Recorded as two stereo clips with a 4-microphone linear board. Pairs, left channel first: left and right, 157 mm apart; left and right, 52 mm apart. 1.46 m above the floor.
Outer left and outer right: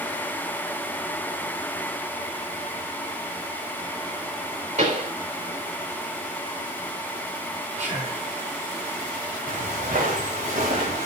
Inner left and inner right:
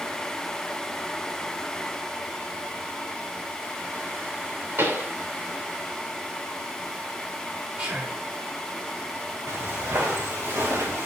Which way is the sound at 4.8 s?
55° right (ahead or behind).